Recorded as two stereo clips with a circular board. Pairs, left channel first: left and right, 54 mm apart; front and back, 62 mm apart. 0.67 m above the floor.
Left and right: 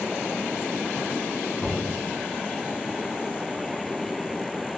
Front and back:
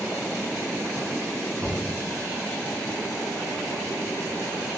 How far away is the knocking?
About 2 m.